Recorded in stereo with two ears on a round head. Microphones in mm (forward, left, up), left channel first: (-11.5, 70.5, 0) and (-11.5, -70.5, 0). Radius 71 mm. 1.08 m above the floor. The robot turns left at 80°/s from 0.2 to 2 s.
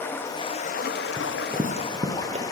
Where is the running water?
165° left, 1.0 m; by 2.5 s 20° left, 1.0 m.